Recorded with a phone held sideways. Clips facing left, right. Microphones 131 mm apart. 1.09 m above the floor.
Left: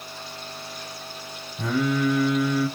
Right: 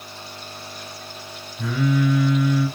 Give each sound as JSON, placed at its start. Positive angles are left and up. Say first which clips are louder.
{"t": 1.6, "sound": "singing", "louder": "right 1 dB", "side_deg": 55, "distance_m": 1.4}